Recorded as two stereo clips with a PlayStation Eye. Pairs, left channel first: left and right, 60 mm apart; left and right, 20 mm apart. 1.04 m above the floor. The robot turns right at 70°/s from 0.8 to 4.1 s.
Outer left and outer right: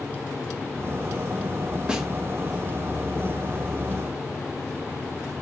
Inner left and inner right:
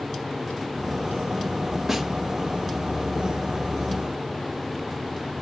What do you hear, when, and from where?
1.9 s a snare drum: 15° right (ahead or behind), 1.0 m; by 2.1 s 5° right (ahead or behind), 1.0 m